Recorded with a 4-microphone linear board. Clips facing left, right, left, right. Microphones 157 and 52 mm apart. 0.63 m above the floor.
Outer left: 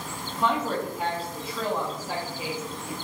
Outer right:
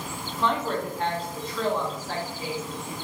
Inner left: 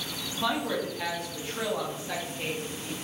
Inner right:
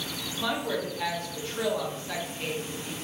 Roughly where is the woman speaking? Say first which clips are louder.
Even, inner left 1 dB; centre.